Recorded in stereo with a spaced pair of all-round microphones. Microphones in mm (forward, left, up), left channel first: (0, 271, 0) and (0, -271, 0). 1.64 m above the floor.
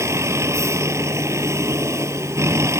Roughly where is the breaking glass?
No breaking glass in this recording.